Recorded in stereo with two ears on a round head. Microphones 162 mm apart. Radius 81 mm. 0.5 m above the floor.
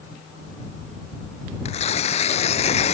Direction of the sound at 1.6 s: 35° left (ahead or behind).